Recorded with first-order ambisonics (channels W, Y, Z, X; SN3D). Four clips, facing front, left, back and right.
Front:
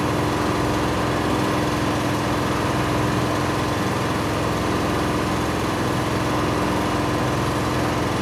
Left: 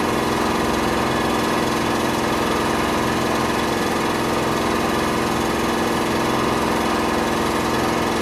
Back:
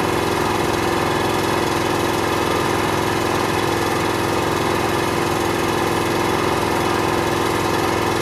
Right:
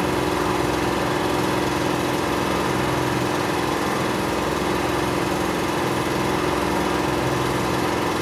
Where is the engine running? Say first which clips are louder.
Left 2 dB, back 3 dB; straight behind, 4 m.